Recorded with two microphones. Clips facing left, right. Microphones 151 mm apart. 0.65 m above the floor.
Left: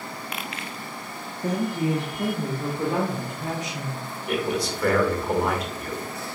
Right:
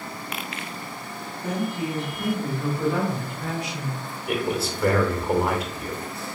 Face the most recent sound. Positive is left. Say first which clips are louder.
# even
turn(degrees=-5)  # may be behind; listen again after turning